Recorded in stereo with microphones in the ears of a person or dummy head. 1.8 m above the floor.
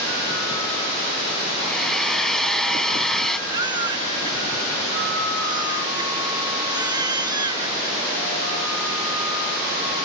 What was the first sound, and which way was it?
A hair dryer, centre (ahead or behind).